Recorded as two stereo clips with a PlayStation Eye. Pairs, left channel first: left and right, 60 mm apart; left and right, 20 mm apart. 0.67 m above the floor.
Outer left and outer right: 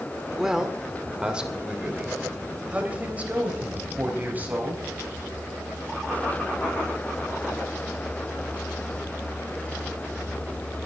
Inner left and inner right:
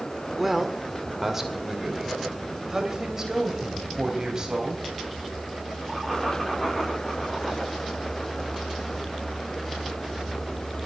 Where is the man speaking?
5° right (ahead or behind), 1.9 m; by 4.8 s 25° right (ahead or behind), 4.5 m.